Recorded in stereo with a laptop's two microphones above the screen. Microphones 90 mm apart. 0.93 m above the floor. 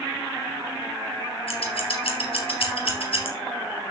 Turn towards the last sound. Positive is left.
turn(degrees=75)  # may be behind; listen again after turning